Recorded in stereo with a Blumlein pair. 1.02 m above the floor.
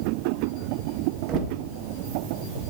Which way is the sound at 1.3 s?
30° right.